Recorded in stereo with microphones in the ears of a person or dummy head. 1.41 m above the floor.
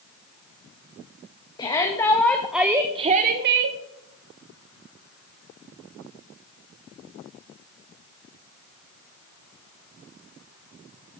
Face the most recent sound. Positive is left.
turn(degrees=-65)  # may be behind; listen again after turning